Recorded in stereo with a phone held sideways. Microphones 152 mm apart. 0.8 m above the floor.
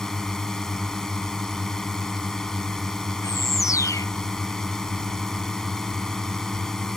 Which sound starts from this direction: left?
A bird, at 3.2 s.